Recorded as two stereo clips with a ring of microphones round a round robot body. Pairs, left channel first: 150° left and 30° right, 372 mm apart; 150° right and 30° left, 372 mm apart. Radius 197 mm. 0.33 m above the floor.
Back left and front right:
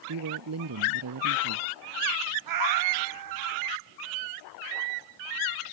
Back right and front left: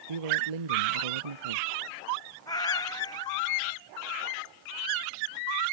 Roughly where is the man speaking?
Ahead.